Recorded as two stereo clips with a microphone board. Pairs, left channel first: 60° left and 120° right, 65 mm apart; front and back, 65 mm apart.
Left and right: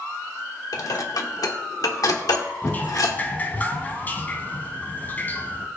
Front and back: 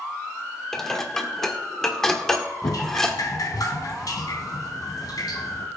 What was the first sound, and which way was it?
Dishes clattering, 85° left.